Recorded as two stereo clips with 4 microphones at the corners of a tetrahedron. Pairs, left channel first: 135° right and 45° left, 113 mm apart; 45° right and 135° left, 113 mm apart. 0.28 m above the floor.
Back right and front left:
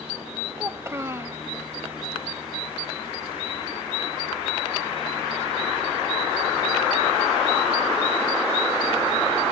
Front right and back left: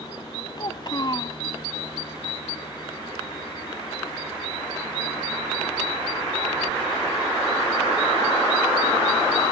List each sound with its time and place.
0.6 s a child speaking: 15° right